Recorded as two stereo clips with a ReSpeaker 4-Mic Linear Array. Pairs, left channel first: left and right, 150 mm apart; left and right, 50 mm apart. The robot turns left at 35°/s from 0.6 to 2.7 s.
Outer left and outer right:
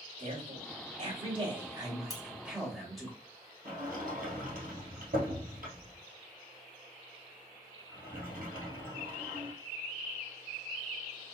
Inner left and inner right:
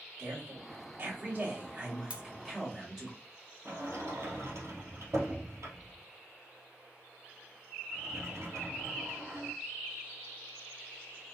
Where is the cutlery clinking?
25° right (ahead or behind), 0.6 m; by 2.2 s 20° right (ahead or behind), 0.6 m.